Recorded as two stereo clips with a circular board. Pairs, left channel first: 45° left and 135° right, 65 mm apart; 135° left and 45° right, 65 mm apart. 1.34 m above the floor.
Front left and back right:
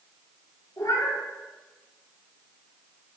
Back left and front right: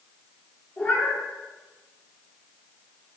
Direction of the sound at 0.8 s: 70° left.